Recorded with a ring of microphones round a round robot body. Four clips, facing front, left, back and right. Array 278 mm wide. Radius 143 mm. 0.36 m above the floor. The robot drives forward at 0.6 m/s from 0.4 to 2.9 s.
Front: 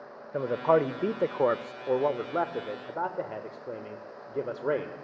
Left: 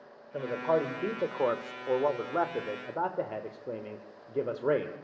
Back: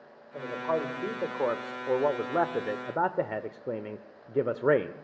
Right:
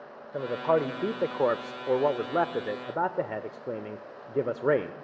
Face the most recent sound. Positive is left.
turn(degrees=-150)